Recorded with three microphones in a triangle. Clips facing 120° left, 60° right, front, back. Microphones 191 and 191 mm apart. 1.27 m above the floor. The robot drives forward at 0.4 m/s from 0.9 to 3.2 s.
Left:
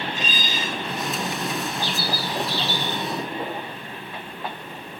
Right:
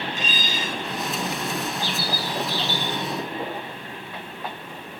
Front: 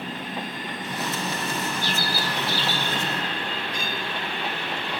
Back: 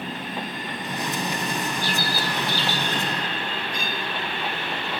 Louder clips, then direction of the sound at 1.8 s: Left 1 dB, back 1 dB; 100° left.